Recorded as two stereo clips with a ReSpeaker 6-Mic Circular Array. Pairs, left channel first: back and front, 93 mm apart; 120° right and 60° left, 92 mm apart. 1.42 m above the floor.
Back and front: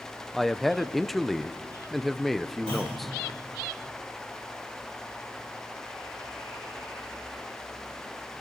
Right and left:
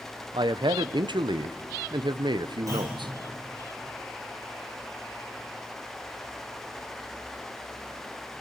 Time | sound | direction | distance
0.3 | a man speaking | 90° left | 0.5 m
2.7 | a clunk | 10° left | 5.5 m